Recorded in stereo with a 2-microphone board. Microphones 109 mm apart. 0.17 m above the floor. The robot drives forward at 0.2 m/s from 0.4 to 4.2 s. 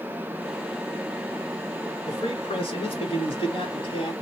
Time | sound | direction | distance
2.1 | a man speaking | 55° left (ahead or behind) | 1.9 m